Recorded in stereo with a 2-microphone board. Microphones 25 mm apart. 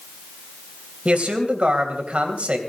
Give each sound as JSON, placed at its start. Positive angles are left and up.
{"t": 1.1, "sound": "a man speaking", "side_deg": -65, "distance_m": 3.0}